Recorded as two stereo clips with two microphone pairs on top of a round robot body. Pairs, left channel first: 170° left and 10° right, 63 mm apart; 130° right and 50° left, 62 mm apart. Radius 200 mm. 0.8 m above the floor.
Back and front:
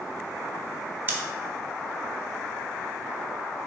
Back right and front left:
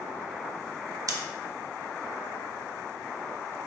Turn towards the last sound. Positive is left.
turn(degrees=50)